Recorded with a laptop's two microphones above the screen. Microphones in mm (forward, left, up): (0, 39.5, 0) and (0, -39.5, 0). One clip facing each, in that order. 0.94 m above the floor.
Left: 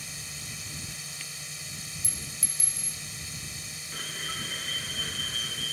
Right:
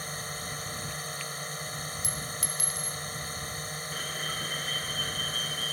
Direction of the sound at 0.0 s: 45° right (ahead or behind).